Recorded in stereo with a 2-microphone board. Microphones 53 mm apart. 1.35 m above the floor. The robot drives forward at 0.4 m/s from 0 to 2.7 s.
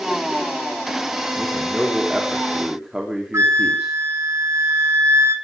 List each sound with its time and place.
1.4 s a man speaking: 5° right (ahead or behind), 4 m; by 3.9 s 10° right (ahead or behind), 3.5 m
3.3 s a flute: 65° right (ahead or behind), 3 m